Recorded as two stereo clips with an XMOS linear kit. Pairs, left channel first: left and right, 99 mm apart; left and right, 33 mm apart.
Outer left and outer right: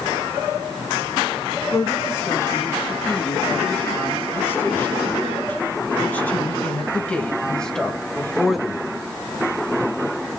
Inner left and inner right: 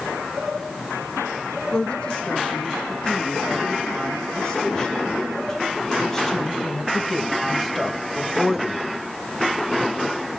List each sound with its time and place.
1.7 s a woman speaking: 25° left (ahead or behind), 6.5 m; by 8.9 s 5° right (ahead or behind), 2 m